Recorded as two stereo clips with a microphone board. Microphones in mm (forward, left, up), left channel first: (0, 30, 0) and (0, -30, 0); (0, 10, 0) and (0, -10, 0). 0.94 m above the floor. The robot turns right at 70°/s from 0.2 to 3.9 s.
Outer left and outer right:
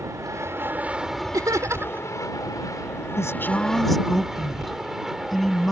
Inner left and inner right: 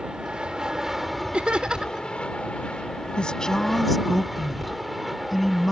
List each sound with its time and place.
0.0 s an aircraft: 70° right; by 5.7 s 175° right
1.3 s laughter: 80° right; by 2.1 s 30° right
3.2 s a woman speaking: 125° left; by 5.7 s straight behind